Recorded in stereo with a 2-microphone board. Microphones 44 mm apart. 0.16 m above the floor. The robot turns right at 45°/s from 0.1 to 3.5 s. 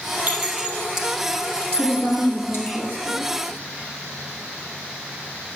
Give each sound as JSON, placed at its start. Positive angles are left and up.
{"t": 0.3, "sound": "a clink", "side_deg": -40, "distance_m": 3.5}
{"t": 1.8, "sound": "a woman speaking", "azimuth_deg": 10, "distance_m": 4.0}